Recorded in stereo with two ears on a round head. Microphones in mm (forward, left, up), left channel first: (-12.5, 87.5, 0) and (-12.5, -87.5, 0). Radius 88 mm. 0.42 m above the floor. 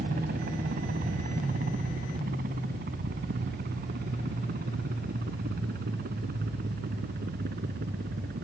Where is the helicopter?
45° right (ahead or behind); by 8.5 s 50° right (ahead or behind).